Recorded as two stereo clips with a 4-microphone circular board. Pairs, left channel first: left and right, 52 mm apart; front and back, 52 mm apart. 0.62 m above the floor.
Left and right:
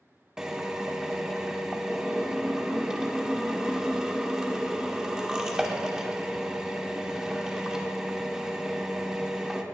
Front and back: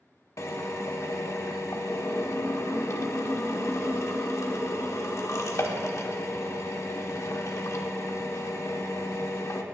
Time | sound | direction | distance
0.4 | a drill | 15° right | 1.1 m